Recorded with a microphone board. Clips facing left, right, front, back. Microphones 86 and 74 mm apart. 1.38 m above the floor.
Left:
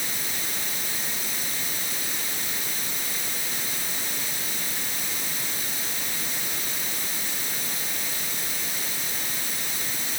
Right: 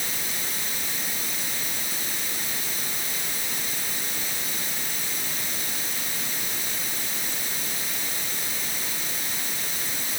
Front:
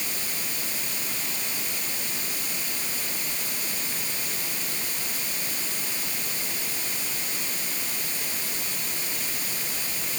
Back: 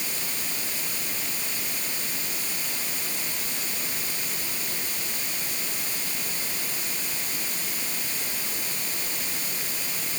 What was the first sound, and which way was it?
Only background noise.